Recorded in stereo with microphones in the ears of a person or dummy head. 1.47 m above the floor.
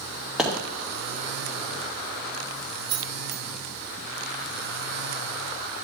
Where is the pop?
5° right (ahead or behind), 2 m.